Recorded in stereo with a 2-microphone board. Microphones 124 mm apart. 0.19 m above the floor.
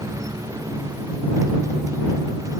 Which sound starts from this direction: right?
A motorcycle, at 0.0 s.